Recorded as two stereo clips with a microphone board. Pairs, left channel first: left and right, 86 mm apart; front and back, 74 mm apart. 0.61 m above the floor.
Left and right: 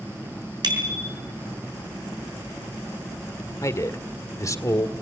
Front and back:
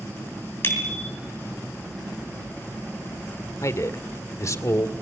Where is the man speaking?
40° left, 1.8 m.